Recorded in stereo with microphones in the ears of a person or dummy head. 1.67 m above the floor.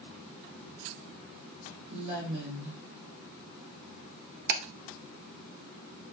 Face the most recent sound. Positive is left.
turn(degrees=-50)  # may be behind; listen again after turning